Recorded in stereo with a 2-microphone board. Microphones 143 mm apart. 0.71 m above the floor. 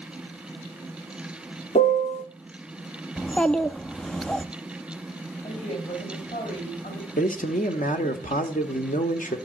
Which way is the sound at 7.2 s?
70° left (ahead or behind).